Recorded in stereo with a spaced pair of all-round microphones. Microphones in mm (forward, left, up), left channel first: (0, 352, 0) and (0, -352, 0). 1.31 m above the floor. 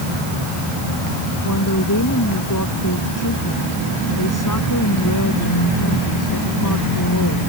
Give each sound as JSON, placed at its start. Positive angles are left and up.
{"t": 1.4, "sound": "a woman speaking", "side_deg": 25}